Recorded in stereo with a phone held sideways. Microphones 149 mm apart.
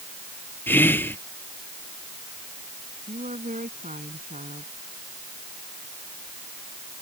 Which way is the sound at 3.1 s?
60° right (ahead or behind).